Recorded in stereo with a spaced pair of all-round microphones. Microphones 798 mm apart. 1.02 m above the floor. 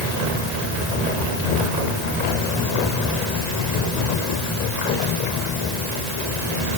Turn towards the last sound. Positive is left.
No sound to turn to.